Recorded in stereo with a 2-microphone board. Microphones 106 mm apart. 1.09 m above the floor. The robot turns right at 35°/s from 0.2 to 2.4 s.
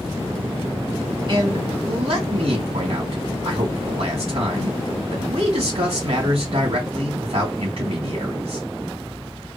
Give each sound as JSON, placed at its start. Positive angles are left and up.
{"t": 1.3, "sound": "a man speaking", "azimuth_deg": -130, "distance_m": 2.0}